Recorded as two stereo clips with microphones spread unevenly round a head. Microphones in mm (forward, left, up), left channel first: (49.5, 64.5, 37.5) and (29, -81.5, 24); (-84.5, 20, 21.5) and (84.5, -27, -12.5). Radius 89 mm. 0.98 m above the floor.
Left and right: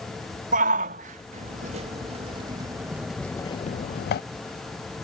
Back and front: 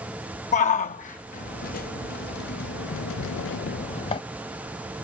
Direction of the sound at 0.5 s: 140° right.